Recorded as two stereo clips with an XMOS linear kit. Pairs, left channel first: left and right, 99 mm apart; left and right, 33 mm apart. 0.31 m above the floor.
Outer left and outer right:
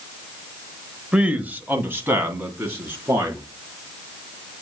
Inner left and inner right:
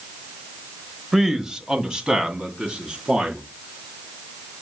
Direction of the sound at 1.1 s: 10° right (ahead or behind).